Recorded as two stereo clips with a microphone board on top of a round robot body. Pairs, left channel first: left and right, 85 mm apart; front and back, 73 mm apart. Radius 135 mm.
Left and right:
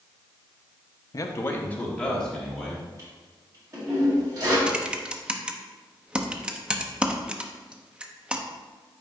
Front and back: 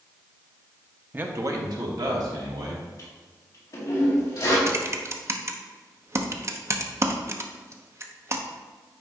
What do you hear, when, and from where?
1.1 s a man speaking: 120° left, 0.9 m; by 2.9 s 175° left, 3 m
3.0 s a toilet flushing: 40° right, 1.9 m
4.7 s typing on a keyboard: 160° right, 0.9 m